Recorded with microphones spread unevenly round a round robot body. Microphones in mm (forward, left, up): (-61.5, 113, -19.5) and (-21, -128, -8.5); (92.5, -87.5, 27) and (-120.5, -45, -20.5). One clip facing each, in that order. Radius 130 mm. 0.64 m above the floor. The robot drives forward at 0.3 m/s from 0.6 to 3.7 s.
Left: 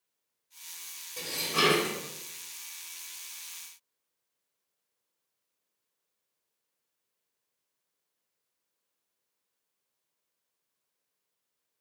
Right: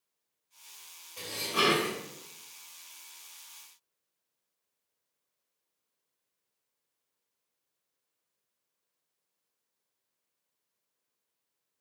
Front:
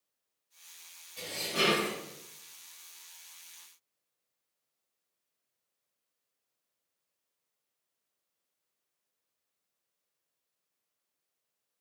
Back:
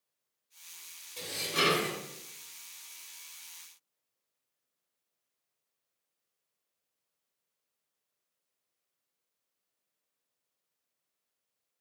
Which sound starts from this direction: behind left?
Dishes clattering, at 1.2 s.